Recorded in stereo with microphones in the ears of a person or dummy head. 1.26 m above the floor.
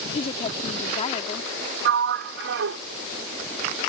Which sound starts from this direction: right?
A sliding door, at 1.9 s.